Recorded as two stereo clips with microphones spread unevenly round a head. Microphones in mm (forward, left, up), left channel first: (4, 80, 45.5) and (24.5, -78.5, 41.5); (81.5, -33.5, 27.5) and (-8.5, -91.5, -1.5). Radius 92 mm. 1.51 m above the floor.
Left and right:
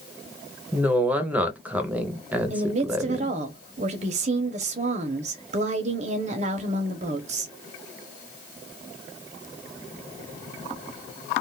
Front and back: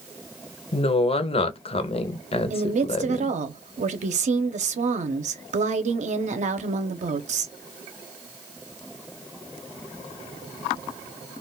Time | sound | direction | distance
0.7 | a woman speaking | straight ahead | 0.7 m
2.5 | a woman speaking | 135° right | 0.7 m